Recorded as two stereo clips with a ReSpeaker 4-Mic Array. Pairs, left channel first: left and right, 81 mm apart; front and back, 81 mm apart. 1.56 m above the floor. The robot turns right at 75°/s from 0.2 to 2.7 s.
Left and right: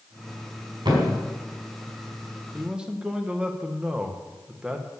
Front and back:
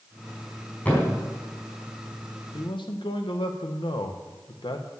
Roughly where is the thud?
Right.